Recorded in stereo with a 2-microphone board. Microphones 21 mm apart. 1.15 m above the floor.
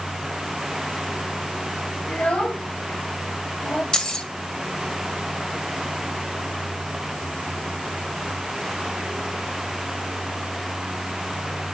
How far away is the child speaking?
About 5 m.